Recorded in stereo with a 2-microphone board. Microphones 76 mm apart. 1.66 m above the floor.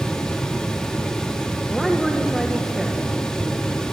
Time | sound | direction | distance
1.7 | a woman speaking | centre (ahead or behind) | 1.8 m